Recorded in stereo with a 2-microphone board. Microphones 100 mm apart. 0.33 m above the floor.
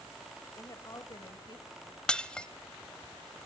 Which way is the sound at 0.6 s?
30° left (ahead or behind).